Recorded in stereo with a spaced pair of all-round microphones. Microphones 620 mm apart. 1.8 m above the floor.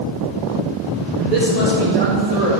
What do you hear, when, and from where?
1.2 s a man speaking: 80° right, 3.5 m